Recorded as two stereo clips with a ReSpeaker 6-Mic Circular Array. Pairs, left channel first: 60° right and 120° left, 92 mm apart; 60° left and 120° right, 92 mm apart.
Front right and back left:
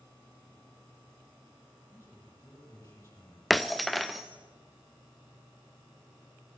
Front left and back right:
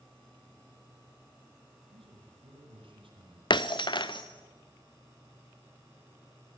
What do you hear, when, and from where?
1.9 s a man speaking: 120° right, 6.5 m
3.5 s breaking glass: 30° left, 0.8 m